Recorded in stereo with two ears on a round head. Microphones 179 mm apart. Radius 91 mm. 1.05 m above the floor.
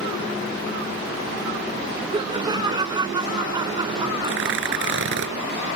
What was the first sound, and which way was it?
Laughter, 20° right (ahead or behind).